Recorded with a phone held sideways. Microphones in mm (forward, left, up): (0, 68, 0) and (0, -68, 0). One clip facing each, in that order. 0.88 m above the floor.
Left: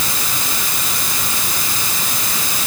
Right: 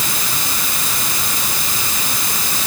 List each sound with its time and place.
Only background noise.